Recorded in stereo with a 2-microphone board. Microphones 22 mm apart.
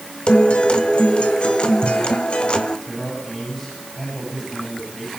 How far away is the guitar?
About 1.4 m.